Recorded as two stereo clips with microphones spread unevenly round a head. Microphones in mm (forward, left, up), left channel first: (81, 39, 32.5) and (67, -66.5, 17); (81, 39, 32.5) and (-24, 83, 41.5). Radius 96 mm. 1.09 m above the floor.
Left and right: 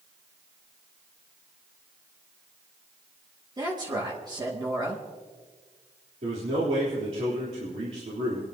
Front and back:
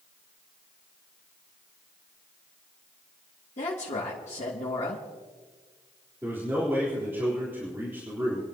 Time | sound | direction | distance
3.6 | a woman speaking | 50° right | 2.5 m
6.2 | a man speaking | 125° right | 3.5 m